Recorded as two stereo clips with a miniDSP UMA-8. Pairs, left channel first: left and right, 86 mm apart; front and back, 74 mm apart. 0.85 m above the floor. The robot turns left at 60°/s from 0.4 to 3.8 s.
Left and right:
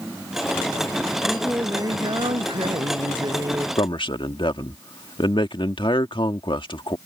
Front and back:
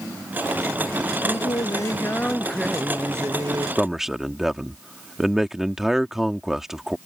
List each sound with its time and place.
1.2 s singing: 10° right; by 3.7 s 155° right
3.8 s a man speaking: 95° left